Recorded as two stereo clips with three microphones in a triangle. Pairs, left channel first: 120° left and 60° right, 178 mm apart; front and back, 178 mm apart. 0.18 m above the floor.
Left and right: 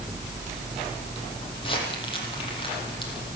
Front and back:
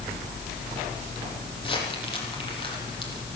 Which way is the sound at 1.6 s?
60° left.